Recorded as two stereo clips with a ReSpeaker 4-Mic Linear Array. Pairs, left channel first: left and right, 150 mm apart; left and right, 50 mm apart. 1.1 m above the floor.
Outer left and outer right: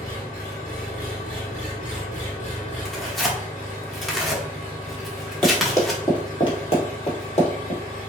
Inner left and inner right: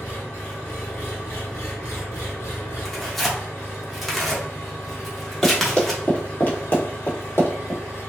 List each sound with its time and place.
0.0 s an engine running: 60° left (ahead or behind), 1.3 m
2.9 s tearing paper: centre (ahead or behind), 0.9 m
5.4 s running footsteps: 10° left (ahead or behind), 1.6 m; by 7.8 s 45° left (ahead or behind), 1.9 m